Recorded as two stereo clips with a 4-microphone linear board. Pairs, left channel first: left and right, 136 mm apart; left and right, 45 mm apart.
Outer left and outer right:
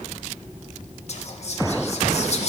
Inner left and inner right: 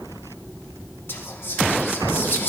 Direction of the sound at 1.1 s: 50° left (ahead or behind).